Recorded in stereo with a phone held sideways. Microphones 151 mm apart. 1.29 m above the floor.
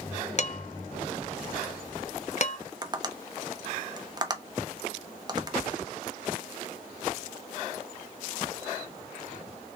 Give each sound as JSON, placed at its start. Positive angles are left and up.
{"t": 0.4, "sound": "dishes clattering", "side_deg": 50, "distance_m": 0.6}
{"t": 2.8, "sound": "tapping", "side_deg": -25, "distance_m": 0.6}